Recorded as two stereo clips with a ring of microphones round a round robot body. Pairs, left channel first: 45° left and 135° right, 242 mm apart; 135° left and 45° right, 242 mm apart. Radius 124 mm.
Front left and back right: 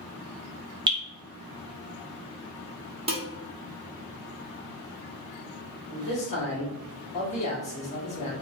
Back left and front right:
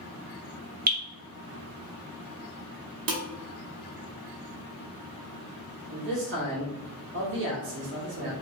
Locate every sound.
0.9 s dripping: 75° right, 1.0 m
3.1 s dishes clattering: 70° right, 0.9 m
5.9 s a man speaking: 15° right, 1.3 m